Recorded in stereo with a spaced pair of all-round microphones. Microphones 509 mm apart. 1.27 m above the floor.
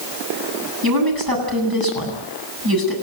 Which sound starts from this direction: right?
A woman speaking, at 0.8 s.